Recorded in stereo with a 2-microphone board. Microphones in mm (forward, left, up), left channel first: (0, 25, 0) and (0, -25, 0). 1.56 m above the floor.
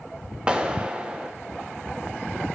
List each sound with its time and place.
0.5 s a clap: 20° right (ahead or behind), 1.3 m